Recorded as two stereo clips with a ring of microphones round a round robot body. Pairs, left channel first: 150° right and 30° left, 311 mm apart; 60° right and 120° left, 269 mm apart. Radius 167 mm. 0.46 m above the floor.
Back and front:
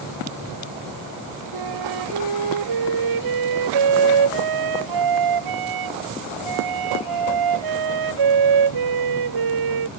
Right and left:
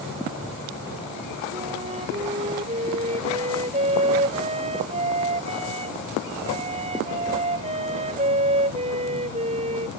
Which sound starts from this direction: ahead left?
A flute, at 1.5 s.